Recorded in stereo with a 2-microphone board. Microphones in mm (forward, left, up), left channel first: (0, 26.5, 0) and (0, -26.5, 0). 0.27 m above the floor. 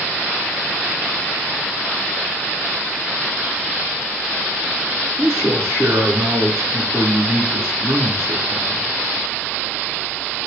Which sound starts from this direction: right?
A man speaking, at 5.2 s.